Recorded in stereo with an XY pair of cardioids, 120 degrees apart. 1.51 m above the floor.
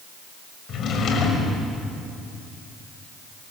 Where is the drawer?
55° left, 5.5 m.